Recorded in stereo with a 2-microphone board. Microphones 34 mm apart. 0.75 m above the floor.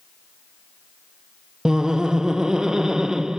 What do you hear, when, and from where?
1.6 s laughter: 15° right (ahead or behind), 0.6 m